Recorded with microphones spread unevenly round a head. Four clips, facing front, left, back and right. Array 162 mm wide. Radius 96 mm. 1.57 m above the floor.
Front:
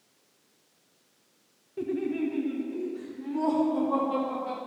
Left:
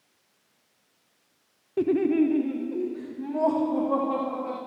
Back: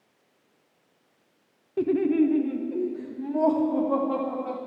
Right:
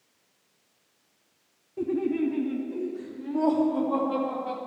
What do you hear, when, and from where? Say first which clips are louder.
1.8 s laughter: left 5 dB, back 8 dB; 90° left, 0.5 m; by 4.6 s 135° left, 3.5 m